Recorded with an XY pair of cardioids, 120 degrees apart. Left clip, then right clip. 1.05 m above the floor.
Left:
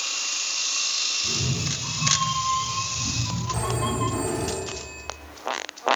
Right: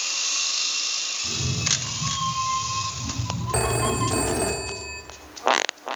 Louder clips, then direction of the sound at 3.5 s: Right 5 dB; 65° right.